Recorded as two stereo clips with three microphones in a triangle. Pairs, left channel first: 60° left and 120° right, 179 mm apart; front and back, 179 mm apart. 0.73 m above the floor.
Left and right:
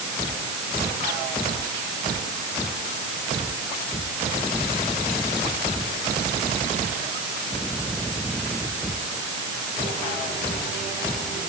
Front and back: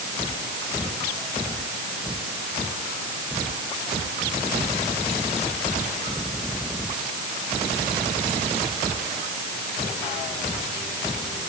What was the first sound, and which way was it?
Only background noise.